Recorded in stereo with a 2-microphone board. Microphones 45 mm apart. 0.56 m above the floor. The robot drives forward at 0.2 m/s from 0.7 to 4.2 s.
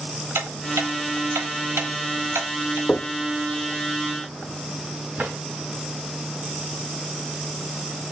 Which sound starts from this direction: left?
Knocking, at 2.9 s.